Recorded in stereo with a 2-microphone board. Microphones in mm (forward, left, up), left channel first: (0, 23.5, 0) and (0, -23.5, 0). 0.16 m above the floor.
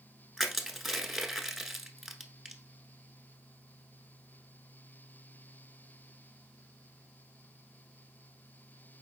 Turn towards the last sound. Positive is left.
turn(degrees=-5)  # may be behind; listen again after turning